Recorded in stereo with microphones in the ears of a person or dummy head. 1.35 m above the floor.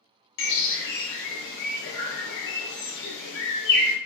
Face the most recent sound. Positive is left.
turn(degrees=65)  # may be behind; listen again after turning